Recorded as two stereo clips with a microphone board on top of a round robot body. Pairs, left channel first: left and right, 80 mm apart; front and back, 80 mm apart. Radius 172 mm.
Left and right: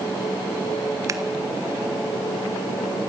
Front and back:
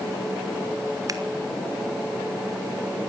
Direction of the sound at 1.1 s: 140° right.